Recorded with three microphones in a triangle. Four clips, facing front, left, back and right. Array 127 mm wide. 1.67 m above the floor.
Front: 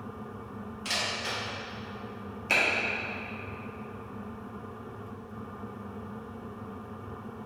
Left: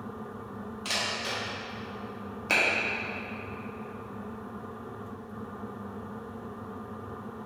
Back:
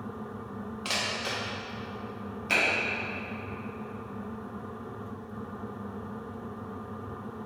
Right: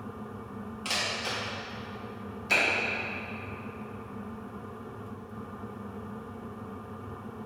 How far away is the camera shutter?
About 1.1 m.